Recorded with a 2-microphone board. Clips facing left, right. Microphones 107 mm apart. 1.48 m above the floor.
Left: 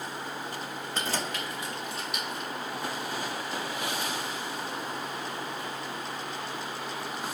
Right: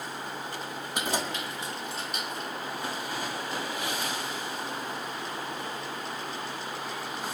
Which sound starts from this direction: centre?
Keys jangling, at 0.9 s.